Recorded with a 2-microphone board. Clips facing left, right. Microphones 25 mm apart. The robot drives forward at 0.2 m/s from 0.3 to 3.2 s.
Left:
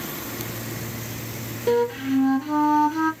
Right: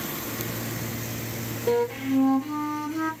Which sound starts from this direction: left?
A flute, at 1.7 s.